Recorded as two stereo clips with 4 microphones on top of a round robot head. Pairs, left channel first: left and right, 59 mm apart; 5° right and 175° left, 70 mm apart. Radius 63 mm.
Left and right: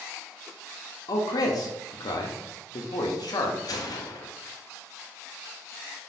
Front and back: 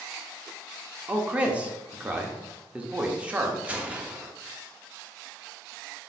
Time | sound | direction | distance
1.1 | a man speaking | 100° left | 0.9 m
3.6 | a gunshot | 100° left | 0.8 m